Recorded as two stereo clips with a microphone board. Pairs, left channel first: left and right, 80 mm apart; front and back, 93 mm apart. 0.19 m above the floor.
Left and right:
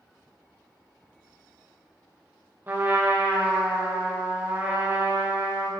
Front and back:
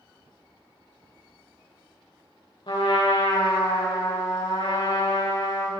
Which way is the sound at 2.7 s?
30° right.